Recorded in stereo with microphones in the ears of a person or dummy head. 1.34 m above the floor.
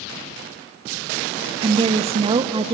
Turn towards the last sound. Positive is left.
turn(degrees=-25)  # may be behind; listen again after turning